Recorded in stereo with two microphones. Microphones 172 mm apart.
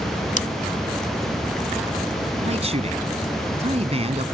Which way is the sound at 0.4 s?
45° left (ahead or behind).